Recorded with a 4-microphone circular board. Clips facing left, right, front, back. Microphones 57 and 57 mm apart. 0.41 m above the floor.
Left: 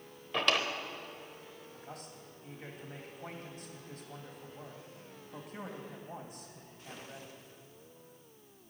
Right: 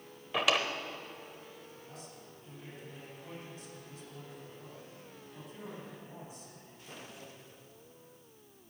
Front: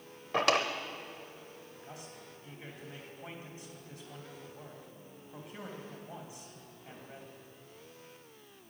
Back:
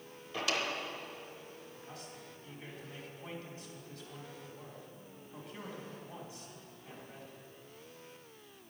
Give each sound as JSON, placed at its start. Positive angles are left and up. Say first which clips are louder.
{"t": 0.3, "sound": "a drawer", "louder": "right 1 dB, front 7 dB", "azimuth_deg": -5, "distance_m": 0.9}
{"t": 1.7, "sound": "a man speaking", "louder": "left 2 dB, even", "azimuth_deg": 70, "distance_m": 3.0}